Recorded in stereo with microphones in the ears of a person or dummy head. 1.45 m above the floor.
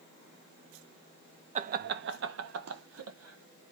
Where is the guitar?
No guitar in this recording.